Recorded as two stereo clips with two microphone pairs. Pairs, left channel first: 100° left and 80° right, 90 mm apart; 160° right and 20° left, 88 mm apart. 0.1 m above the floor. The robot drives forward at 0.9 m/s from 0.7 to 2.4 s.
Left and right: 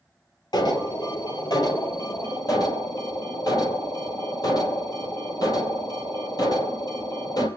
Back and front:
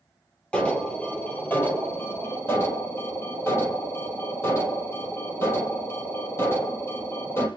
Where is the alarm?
125° left, 3.5 m; by 7.5 s 140° left, 4.5 m.